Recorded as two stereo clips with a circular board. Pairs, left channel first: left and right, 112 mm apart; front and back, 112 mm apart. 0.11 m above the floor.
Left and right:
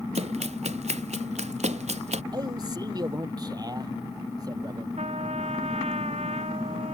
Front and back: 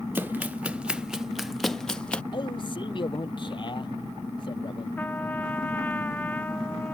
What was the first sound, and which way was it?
Running footsteps, 105° right.